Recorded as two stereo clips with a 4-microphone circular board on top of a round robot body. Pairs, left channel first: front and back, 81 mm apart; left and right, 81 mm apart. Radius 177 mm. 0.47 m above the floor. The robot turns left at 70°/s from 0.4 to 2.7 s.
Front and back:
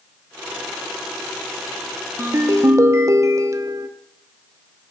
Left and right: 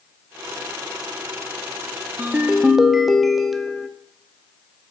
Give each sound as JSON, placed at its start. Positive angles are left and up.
{"t": 2.2, "sound": "a ringtone", "azimuth_deg": -140, "distance_m": 0.8}